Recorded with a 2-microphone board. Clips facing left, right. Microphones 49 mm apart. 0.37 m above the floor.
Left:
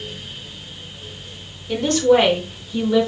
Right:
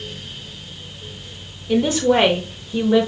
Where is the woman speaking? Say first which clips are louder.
Left 1 dB; 10° right (ahead or behind), 0.9 m; by 3.1 s 40° right (ahead or behind), 1.3 m.